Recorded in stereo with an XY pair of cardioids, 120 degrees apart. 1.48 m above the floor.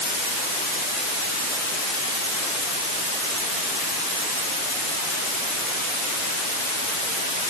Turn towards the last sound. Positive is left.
No sound to turn to.